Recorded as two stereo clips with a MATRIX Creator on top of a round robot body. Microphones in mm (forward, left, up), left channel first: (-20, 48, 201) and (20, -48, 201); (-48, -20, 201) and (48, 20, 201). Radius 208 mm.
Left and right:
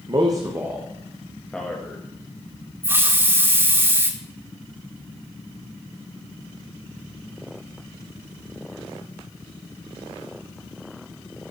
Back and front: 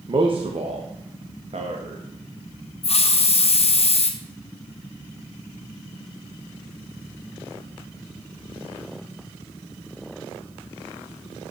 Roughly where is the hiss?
Behind right.